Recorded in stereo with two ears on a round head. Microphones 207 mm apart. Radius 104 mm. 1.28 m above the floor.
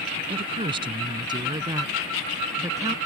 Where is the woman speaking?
25° right (ahead or behind); by 3.0 s 15° right (ahead or behind).